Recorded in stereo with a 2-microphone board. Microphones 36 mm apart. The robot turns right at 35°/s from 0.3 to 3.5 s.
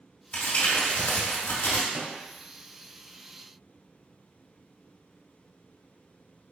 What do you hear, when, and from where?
0.3 s crumpling: 40° left, 1.6 m; by 1.8 s 95° left, 1.6 m
1.9 s a microwave: 40° right (ahead or behind), 0.8 m